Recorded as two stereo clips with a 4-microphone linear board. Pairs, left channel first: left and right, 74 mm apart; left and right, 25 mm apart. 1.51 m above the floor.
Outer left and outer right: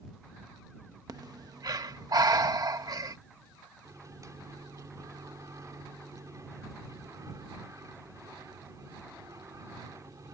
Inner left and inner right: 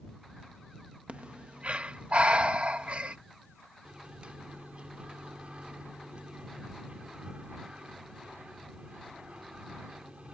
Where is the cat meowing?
I don't hear a cat meowing.